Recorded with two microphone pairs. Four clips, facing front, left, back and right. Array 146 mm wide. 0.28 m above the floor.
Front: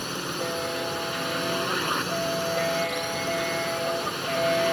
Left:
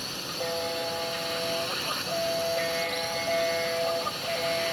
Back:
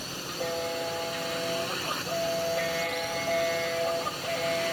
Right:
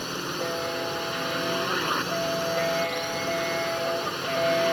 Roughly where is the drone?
Ahead right.